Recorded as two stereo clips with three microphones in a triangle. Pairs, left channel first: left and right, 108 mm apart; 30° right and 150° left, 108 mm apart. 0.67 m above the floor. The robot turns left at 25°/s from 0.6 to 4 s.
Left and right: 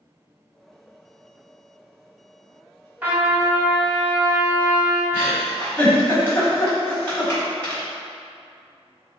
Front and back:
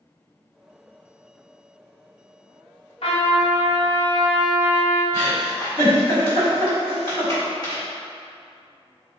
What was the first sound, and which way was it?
A trumpet, 20° right.